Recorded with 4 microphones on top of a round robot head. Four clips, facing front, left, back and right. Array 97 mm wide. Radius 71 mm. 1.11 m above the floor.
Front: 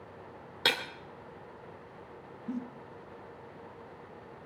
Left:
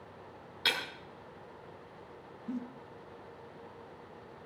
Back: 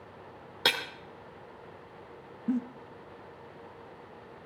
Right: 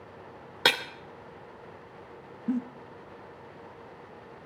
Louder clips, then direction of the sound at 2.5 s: Right 9 dB, back 7 dB; 135° right.